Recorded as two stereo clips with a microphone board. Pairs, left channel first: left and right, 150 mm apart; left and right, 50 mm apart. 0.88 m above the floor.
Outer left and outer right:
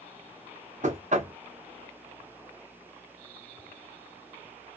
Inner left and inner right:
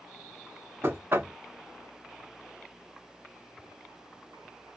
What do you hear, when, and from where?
0.8 s knocking: 55° right (ahead or behind), 0.6 m